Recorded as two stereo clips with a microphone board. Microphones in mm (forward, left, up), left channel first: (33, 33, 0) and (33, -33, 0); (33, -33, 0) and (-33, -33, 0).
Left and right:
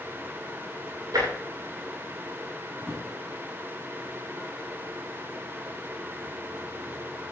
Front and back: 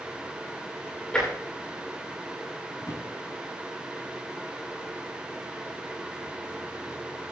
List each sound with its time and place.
1.1 s tapping: 75° right, 9.5 m
2.8 s a drawer: 10° right, 6 m